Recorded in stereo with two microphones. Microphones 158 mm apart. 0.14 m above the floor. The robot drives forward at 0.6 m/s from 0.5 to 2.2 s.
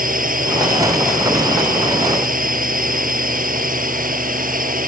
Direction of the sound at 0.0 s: 60° right (ahead or behind).